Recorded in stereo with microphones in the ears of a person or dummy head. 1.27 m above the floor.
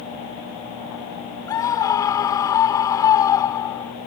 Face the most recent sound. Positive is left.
turn(degrees=15)  # may be behind; listen again after turning